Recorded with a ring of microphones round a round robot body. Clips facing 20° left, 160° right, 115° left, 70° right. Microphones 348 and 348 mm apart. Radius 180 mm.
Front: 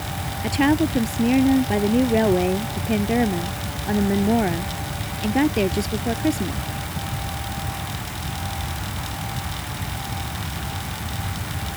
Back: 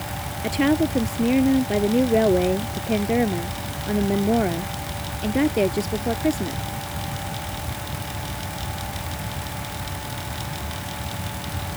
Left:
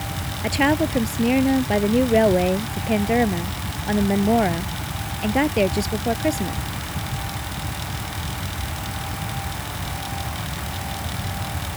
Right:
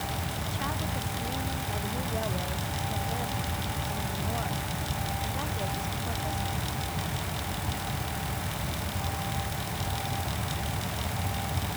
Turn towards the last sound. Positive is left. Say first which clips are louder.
# front 1 dB, left 21 dB
turn(degrees=105)